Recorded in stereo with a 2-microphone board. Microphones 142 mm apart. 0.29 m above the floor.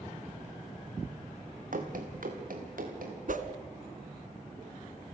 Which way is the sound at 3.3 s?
70° right (ahead or behind).